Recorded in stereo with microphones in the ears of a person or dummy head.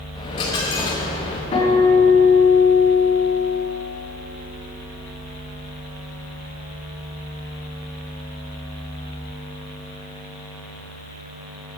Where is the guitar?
35° left (ahead or behind), 3 m.